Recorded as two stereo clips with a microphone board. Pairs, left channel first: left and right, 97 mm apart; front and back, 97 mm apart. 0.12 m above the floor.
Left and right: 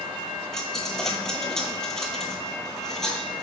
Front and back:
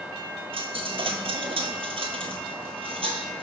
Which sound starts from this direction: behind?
A dropped coin, at 0.5 s.